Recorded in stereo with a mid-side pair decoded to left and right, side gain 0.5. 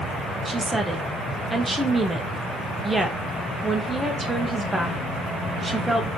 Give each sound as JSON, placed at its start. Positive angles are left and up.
{"t": 0.5, "sound": "a woman speaking", "azimuth_deg": -15, "distance_m": 0.8}